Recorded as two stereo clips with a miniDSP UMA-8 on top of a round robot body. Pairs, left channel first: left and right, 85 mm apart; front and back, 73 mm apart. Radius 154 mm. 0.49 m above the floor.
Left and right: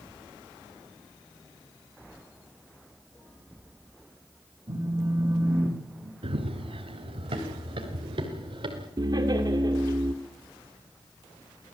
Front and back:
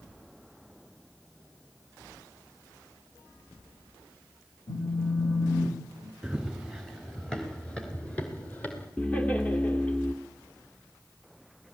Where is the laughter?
65° right, 2 m.